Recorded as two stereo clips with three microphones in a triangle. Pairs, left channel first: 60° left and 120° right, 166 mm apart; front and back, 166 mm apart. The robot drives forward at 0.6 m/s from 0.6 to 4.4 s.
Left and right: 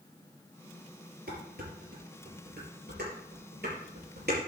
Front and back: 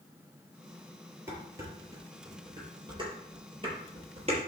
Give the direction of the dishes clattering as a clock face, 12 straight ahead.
4 o'clock.